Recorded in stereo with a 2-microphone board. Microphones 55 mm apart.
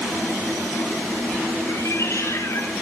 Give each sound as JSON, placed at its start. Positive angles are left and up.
{"t": 1.7, "sound": "a cat meowing", "side_deg": 65, "distance_m": 5.5}